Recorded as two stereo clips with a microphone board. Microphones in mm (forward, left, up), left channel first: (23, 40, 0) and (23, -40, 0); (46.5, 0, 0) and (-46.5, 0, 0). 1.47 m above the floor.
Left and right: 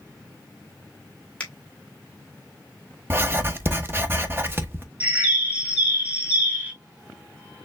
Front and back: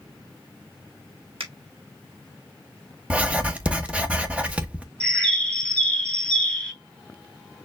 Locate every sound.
1.4 s a finger snap: 165° left, 1.7 m
3.1 s writing: 115° right, 0.9 m
5.0 s a bird: 60° right, 1.2 m